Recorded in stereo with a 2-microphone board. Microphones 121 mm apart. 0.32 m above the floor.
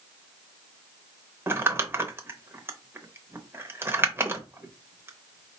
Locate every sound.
1.5 s crumpling: 20° right (ahead or behind), 0.6 m